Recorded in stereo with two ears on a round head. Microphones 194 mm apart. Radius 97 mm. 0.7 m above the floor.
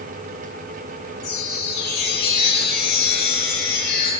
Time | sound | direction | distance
1.2 | a chime | 55° left (ahead or behind) | 6 m